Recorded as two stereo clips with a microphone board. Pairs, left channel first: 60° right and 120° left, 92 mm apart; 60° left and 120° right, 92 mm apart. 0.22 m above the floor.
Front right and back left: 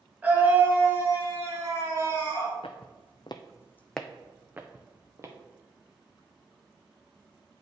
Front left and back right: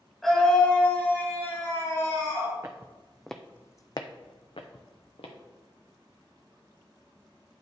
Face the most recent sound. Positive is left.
turn(degrees=60)